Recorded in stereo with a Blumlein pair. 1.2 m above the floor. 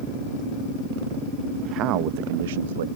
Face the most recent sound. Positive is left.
turn(degrees=-60)